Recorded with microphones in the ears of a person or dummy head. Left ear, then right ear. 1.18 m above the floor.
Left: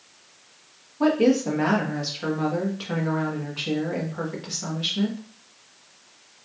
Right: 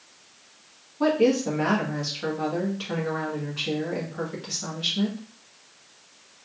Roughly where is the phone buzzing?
I don't hear a phone buzzing.